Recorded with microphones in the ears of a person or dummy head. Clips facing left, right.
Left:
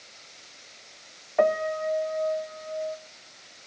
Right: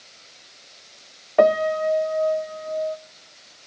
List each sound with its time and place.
1.4 s a piano: 55° right (ahead or behind), 0.5 m